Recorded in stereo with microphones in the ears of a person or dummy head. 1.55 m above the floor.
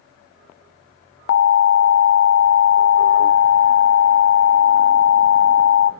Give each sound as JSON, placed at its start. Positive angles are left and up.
{"t": 1.3, "sound": "an alarm", "side_deg": 70, "distance_m": 0.8}